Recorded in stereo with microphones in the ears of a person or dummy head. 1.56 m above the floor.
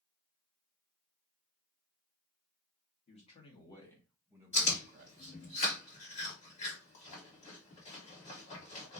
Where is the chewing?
40° left (ahead or behind), 1.4 m.